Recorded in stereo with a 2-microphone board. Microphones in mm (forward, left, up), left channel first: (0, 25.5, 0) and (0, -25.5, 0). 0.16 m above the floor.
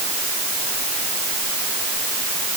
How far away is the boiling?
I don't hear boiling.